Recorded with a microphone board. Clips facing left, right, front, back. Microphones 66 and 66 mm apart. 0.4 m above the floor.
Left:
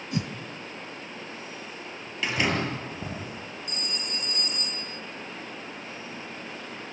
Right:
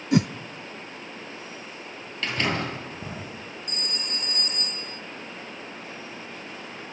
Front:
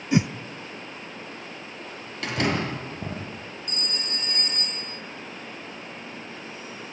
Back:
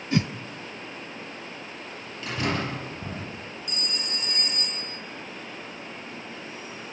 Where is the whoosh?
75° right, 0.5 m.